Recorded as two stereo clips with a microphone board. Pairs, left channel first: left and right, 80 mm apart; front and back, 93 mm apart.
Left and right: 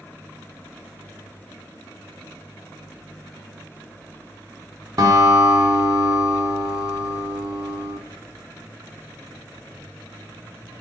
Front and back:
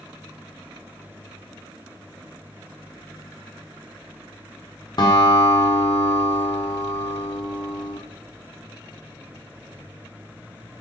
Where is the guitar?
40° right, 0.6 m.